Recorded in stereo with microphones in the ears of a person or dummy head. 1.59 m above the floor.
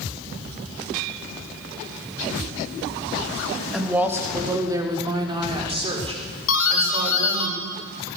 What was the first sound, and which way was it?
A woman speaking, 5° right (ahead or behind).